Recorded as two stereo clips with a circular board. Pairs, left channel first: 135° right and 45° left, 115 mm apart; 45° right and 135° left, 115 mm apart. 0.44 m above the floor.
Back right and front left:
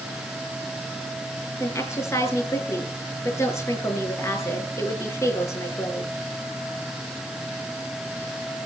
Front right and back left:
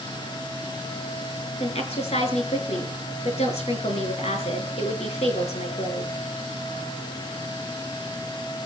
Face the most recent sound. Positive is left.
turn(degrees=-70)